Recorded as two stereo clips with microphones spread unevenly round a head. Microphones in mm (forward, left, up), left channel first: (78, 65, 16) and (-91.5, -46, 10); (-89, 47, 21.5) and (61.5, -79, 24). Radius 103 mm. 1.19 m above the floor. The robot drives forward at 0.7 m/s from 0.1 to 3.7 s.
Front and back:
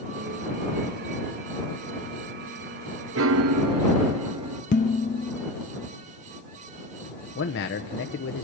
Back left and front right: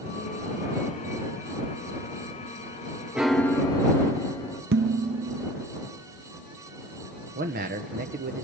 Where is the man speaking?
5° left, 0.8 m.